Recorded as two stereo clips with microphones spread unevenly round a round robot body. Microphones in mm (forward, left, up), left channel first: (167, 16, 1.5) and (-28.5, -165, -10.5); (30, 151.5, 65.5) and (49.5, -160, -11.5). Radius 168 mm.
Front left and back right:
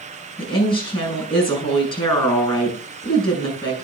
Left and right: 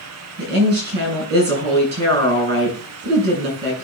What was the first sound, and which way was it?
A woman speaking, 30° right.